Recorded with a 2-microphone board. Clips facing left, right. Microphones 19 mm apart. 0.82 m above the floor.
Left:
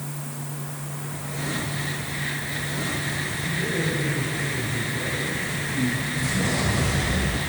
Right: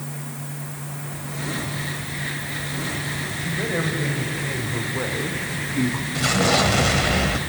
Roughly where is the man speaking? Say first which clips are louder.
Right 2 dB; right.